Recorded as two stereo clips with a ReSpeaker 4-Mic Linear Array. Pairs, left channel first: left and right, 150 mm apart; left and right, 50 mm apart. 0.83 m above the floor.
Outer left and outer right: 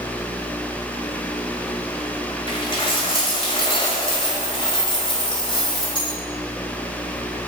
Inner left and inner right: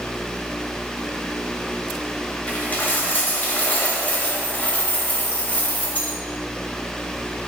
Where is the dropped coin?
35° left (ahead or behind), 1.4 m.